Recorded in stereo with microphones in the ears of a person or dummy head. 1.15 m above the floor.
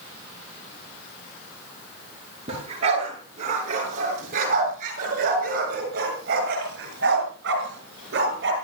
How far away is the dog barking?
About 7.5 m.